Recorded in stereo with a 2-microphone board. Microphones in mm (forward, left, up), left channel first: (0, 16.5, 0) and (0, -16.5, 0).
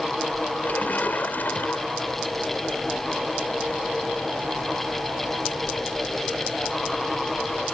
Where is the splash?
65° left (ahead or behind).